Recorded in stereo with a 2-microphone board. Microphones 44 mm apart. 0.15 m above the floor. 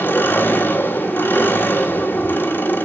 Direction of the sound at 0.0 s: 50° left (ahead or behind).